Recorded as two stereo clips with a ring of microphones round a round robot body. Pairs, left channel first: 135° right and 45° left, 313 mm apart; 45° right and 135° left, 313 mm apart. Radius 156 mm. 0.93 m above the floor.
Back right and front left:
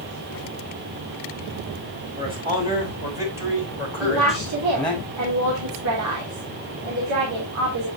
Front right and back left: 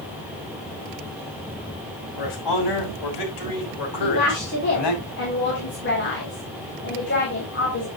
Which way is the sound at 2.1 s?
30° right.